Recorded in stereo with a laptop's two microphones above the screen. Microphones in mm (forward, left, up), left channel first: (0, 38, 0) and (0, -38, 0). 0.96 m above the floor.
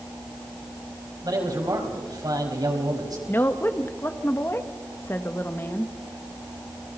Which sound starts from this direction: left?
A woman speaking, at 3.3 s.